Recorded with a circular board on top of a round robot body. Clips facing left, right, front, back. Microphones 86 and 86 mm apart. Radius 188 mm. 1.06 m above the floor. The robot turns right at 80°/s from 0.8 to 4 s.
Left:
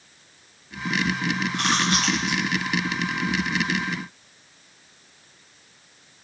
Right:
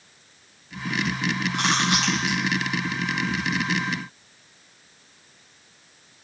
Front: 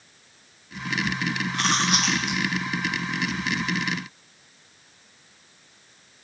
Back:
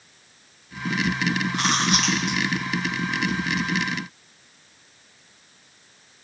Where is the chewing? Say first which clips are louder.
Right 1 dB, front 2 dB; 120° right, 1.5 m; by 2.4 s 50° right, 1.5 m.